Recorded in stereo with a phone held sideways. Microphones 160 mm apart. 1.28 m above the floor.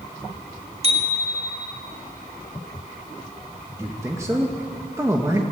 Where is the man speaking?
20° right (ahead or behind), 1.7 m.